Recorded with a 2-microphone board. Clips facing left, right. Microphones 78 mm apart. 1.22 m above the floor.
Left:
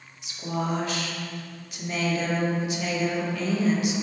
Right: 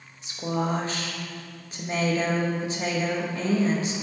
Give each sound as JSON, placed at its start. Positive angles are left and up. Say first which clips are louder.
{"t": 0.2, "sound": "a woman speaking", "louder": "right 2 dB", "side_deg": -35, "distance_m": 1.2}